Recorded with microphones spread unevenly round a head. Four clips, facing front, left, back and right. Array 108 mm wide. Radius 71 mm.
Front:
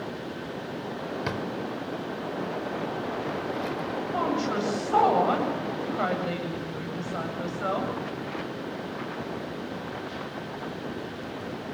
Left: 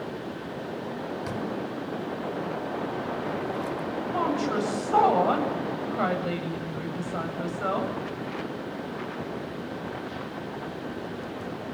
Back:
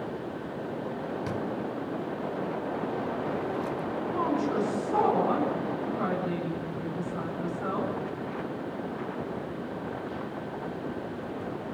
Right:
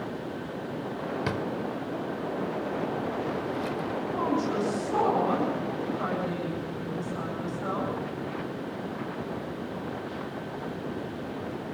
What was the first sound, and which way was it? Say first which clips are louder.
A drawer: right 1 dB, even; 30° right.